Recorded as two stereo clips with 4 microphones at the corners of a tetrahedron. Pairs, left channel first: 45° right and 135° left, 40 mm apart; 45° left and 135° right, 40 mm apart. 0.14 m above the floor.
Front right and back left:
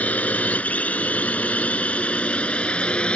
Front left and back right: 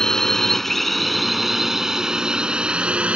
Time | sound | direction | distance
0.0 | a drone | 20° right | ?